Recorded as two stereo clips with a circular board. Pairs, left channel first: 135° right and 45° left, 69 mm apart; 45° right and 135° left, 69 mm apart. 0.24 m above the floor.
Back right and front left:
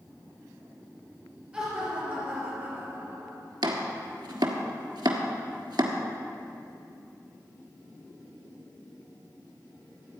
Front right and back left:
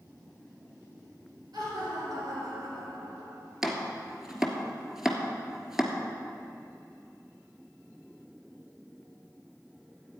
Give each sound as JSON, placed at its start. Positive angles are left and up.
{"t": 1.5, "sound": "laughter", "azimuth_deg": 120, "distance_m": 4.0}
{"t": 3.6, "sound": "chopping", "azimuth_deg": 50, "distance_m": 1.3}